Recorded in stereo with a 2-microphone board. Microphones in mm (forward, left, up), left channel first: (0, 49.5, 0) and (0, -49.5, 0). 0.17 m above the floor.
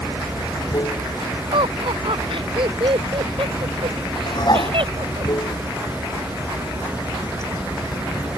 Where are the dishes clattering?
45° left (ahead or behind).